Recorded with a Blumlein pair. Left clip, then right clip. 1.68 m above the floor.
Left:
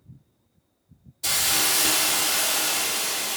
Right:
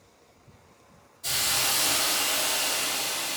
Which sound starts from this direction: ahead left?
A hiss, at 1.2 s.